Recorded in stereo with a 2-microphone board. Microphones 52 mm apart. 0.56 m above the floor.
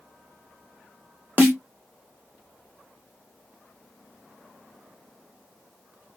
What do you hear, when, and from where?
1.4 s a snare drum: 35° right (ahead or behind), 1.2 m